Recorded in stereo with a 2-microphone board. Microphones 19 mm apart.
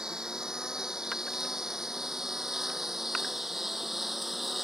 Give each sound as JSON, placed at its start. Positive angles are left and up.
{"t": 0.0, "sound": "a lawn mower", "side_deg": -40}